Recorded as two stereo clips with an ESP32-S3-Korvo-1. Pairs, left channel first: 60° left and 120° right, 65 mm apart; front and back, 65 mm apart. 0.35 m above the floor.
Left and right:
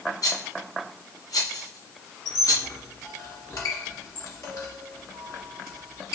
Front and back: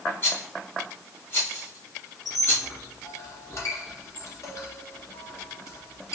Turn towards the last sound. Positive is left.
turn(degrees=40)